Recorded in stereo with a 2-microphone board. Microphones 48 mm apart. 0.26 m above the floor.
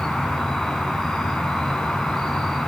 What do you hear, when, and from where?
0.0 s an insect: 10° left (ahead or behind), 3.5 m